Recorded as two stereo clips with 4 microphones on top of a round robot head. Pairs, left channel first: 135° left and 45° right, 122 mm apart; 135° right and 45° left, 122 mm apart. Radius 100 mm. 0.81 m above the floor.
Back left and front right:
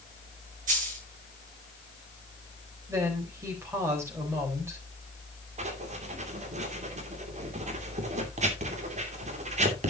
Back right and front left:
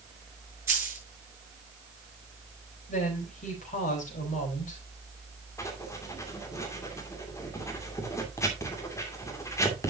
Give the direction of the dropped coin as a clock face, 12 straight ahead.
1 o'clock.